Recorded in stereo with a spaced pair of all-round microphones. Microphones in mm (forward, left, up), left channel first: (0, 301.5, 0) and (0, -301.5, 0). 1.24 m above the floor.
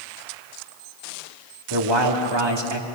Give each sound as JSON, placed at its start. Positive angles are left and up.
{"t": 1.7, "sound": "a man speaking", "side_deg": -45, "distance_m": 2.5}